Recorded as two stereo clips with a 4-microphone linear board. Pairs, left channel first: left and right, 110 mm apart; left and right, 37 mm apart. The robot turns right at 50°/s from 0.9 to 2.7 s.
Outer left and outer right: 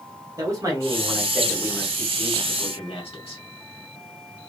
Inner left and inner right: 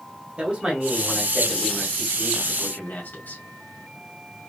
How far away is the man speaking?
About 2 m.